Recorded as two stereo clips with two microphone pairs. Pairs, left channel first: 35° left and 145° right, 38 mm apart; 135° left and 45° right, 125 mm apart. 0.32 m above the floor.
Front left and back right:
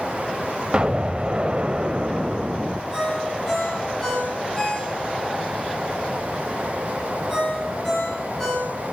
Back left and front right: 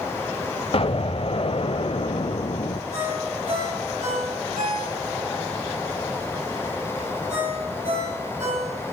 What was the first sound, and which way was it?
An explosion, 160° left.